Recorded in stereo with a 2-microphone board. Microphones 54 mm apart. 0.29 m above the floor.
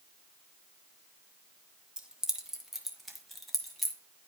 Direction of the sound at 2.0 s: 15° right (ahead or behind).